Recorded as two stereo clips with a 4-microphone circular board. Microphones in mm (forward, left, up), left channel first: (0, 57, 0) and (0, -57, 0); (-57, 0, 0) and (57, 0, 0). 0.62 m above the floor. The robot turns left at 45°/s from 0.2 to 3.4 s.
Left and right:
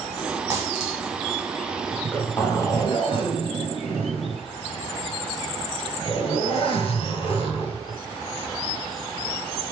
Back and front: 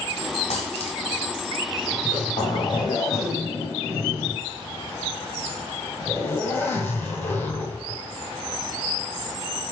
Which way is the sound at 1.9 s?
175° left.